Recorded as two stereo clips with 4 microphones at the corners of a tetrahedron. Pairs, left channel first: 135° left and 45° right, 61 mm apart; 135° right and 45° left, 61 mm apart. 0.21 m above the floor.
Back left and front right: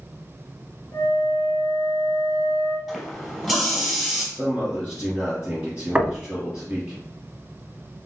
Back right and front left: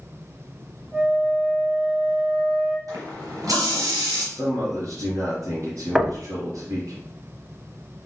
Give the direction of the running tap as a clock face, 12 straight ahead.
11 o'clock.